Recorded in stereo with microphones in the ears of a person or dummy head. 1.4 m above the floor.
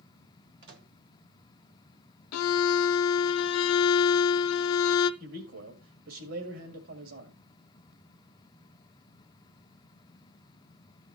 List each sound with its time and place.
0.6 s a microwave: 65° right (ahead or behind), 1.1 m
2.3 s a violin: 80° left, 0.5 m
5.2 s a man speaking: 65° right (ahead or behind), 2 m